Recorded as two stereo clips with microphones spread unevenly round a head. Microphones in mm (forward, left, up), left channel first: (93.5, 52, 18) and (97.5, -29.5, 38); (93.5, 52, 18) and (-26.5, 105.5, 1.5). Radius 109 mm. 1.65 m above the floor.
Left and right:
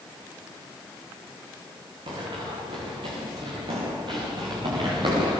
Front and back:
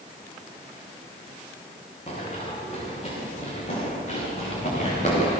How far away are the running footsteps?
About 8 m.